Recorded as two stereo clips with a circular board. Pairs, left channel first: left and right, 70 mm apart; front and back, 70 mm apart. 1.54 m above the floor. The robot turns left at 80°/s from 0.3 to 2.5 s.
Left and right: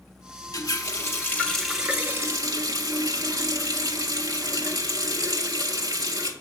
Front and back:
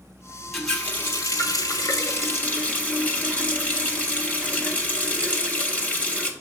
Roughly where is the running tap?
Left.